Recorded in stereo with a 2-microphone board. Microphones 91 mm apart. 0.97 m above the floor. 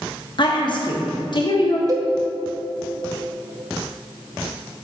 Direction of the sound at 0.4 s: 50° left (ahead or behind).